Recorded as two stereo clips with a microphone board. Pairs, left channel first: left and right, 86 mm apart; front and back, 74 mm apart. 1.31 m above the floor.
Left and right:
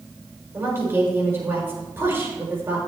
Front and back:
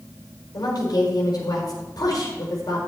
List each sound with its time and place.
0.5 s a woman speaking: 25° right, 5.5 m